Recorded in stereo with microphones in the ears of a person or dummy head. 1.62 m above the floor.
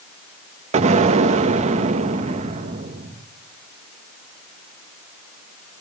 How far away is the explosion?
About 1.5 m.